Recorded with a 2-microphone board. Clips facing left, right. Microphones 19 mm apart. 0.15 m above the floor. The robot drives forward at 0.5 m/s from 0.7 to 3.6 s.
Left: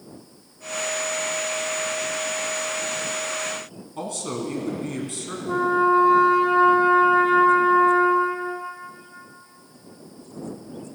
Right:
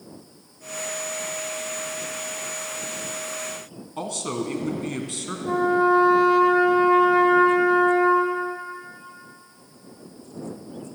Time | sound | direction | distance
4.0 | a man speaking | 20° right (ahead or behind) | 1.3 m
5.5 | a trumpet | 55° right (ahead or behind) | 2 m